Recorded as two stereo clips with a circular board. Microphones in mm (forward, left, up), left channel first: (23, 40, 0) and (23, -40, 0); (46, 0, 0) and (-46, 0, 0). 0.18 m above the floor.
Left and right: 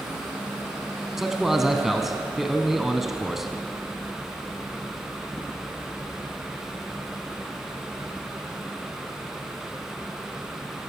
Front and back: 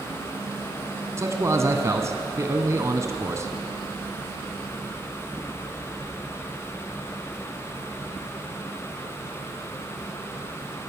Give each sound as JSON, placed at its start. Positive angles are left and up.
{"t": 1.2, "sound": "a man speaking", "azimuth_deg": -175, "distance_m": 1.1}